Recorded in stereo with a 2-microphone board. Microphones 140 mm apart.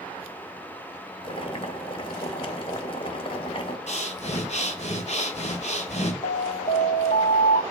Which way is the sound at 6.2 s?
75° left (ahead or behind).